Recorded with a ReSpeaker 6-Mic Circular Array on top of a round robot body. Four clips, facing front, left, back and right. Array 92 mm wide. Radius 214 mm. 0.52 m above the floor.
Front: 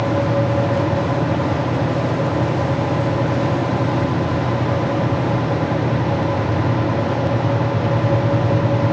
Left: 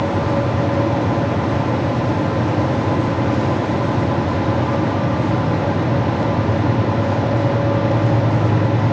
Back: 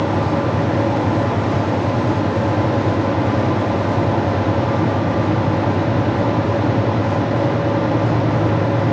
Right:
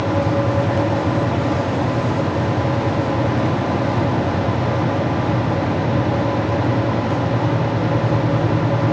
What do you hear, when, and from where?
Only background noise.